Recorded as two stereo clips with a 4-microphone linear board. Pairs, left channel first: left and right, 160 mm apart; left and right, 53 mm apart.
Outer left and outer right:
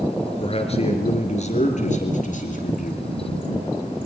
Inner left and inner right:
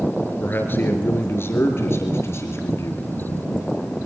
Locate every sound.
0.4 s a man speaking: 40° left (ahead or behind), 4 m; by 3.0 s 55° left (ahead or behind), 5 m